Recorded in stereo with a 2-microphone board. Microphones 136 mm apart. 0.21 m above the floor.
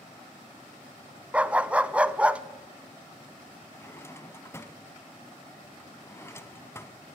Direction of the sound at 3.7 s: 20° left (ahead or behind).